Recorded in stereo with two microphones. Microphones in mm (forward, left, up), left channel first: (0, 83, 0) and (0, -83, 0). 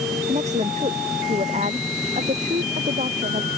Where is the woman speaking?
45° right (ahead or behind); by 3.5 s 50° right (ahead or behind).